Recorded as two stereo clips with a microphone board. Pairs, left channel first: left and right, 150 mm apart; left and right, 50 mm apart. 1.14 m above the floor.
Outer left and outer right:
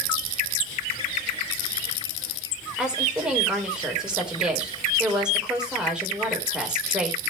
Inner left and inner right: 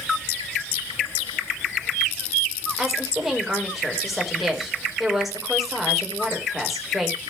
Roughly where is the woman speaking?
Centre.